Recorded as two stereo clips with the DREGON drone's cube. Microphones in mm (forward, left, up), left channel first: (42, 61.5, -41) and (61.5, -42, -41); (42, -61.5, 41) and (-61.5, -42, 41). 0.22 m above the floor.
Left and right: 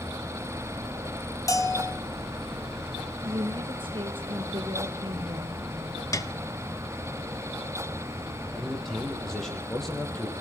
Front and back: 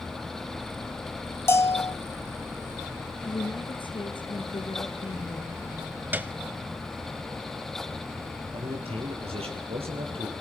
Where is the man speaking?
170° right, 7.5 m.